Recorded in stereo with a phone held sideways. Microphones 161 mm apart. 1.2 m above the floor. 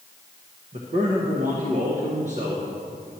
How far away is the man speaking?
About 1.1 m.